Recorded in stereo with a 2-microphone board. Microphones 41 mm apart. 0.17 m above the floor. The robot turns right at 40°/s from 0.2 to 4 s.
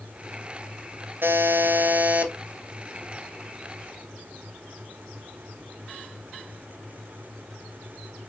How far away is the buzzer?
About 1.0 m.